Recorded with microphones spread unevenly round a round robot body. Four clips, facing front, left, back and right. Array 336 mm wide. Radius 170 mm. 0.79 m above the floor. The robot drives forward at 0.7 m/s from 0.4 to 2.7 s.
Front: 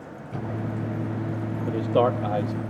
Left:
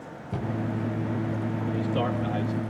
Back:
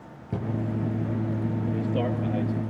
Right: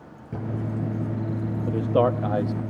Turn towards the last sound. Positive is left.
turn(degrees=-60)